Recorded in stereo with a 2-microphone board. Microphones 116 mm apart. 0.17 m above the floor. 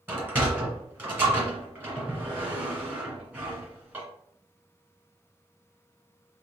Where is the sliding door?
15° right (ahead or behind), 1.6 m.